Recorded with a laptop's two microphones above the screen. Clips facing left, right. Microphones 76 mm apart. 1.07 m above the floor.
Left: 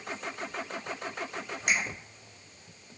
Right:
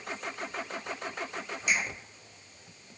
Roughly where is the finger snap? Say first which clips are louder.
Left 1 dB; left.